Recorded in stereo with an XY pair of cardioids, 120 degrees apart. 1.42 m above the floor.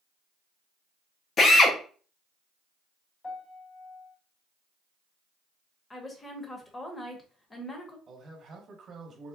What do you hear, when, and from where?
1.4 s a drill: 45° left, 0.7 m
3.2 s a piano: 30° left, 1.1 m
5.9 s a woman speaking: 20° left, 1.0 m
8.1 s a man speaking: 45° right, 1.2 m